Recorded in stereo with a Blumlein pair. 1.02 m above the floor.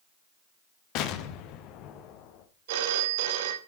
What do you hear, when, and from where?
0.9 s an explosion: 40° left, 0.8 m
2.7 s a phone ringing: 55° right, 0.8 m